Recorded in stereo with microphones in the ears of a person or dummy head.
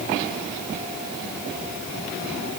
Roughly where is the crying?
No crying in this recording.